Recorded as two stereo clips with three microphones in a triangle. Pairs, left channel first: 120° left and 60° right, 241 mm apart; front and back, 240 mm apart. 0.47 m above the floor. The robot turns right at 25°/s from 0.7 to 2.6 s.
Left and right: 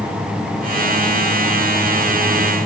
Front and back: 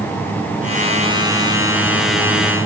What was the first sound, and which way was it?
Only background noise.